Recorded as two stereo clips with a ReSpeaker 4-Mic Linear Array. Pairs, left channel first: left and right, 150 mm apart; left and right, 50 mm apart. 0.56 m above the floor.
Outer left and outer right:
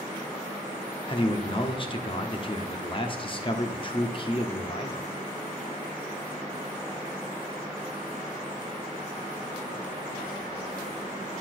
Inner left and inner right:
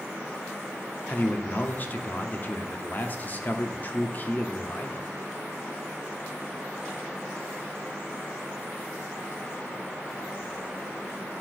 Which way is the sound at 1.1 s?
35° left (ahead or behind).